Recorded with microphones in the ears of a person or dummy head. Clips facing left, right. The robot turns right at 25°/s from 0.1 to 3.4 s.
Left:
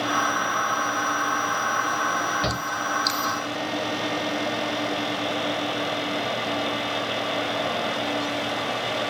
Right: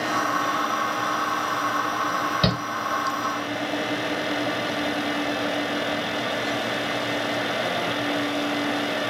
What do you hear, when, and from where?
2.4 s a shout: 55° right (ahead or behind), 0.9 m; by 2.6 s 50° right (ahead or behind), 0.9 m